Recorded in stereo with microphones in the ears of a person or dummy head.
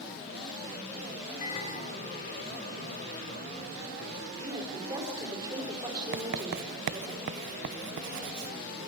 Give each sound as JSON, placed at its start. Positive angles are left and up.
{"t": 1.4, "sound": "a microwave", "side_deg": 45, "distance_m": 4.0}
{"t": 4.4, "sound": "a woman speaking", "side_deg": -25, "distance_m": 5.0}
{"t": 6.1, "sound": "writing", "side_deg": -60, "distance_m": 0.6}